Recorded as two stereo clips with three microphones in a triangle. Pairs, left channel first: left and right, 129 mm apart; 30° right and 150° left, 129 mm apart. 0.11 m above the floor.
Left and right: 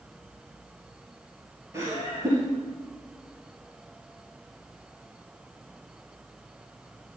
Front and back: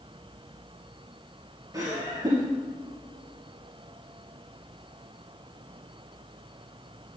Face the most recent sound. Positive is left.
turn(degrees=-150)